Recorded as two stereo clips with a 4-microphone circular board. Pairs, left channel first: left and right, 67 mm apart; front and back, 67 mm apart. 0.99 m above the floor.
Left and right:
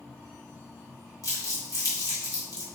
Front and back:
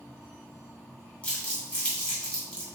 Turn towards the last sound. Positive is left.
turn(degrees=75)